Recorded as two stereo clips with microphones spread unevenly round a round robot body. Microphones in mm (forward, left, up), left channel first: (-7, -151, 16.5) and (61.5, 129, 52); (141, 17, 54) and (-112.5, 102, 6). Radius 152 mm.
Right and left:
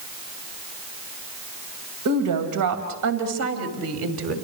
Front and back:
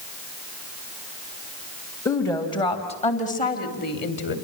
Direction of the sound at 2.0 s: 65° left.